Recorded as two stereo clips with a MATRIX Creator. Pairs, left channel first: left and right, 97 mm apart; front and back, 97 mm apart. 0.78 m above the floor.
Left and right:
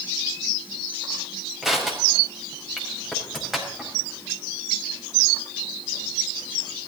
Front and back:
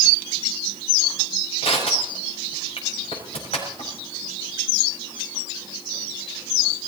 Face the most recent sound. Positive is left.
turn(degrees=0)